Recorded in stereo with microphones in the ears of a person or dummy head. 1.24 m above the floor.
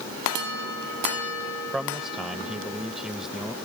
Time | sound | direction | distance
1.7 | a man speaking | centre (ahead or behind) | ?